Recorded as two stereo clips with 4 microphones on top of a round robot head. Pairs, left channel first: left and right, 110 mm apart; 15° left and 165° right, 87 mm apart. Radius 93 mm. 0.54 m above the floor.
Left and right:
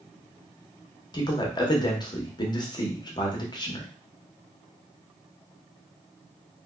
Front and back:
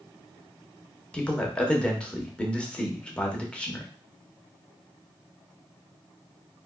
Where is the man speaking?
85° left, 1.2 m.